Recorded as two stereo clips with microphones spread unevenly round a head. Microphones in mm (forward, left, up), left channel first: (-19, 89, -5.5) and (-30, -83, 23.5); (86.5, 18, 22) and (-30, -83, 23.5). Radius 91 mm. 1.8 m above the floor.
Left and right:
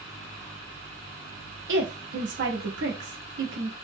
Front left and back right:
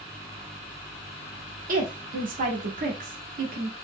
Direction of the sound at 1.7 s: 105° right.